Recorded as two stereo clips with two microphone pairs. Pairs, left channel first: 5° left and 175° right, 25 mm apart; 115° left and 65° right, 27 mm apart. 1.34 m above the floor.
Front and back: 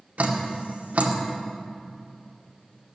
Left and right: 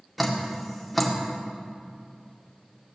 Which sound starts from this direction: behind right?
Dripping, at 0.2 s.